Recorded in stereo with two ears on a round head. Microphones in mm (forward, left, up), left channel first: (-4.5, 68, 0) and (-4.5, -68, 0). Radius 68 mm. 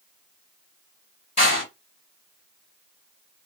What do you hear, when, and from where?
1.4 s a door slam: 45° left (ahead or behind), 1.8 m